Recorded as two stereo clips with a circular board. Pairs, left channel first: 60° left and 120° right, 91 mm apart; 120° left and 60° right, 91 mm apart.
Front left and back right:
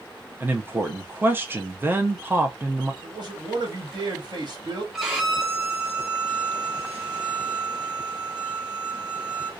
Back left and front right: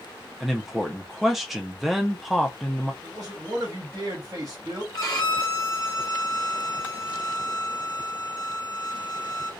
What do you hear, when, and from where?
0.4 s a man speaking: 145° right, 0.5 m
3.0 s a man speaking: 100° right, 1.4 m
4.9 s a violin: 155° left, 0.9 m